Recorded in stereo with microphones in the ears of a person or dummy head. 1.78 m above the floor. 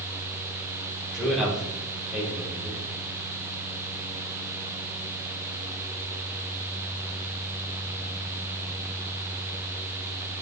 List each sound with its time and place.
1.1 s a man speaking: 5° right (ahead or behind), 4.5 m